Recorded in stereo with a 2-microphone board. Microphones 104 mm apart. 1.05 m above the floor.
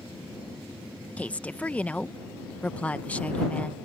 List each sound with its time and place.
1.2 s a woman speaking: 15° left (ahead or behind)